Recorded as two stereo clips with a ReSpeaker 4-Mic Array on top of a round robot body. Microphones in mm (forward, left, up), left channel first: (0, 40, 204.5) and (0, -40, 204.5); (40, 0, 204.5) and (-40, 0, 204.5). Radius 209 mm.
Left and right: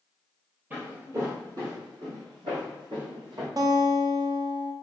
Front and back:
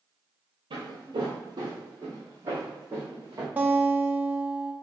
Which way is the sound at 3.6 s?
115° right.